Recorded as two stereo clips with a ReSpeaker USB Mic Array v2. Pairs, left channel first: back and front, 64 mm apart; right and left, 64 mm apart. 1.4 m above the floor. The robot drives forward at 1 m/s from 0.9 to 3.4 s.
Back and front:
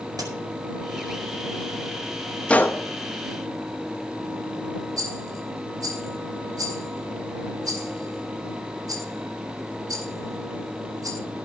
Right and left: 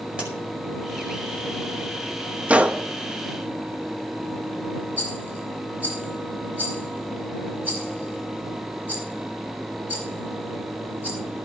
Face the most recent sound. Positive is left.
turn(degrees=25)